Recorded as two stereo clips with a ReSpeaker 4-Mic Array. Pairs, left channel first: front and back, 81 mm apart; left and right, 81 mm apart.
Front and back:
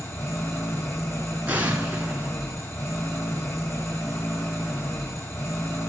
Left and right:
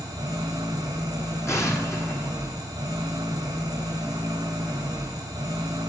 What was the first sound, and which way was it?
An engine running, 50° right.